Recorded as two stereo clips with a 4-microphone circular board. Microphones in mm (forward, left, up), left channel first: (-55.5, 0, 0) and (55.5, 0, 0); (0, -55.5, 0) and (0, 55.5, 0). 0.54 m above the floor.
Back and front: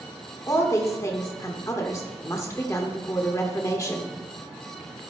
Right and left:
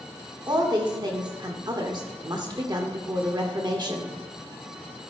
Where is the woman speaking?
125° left, 1.2 m.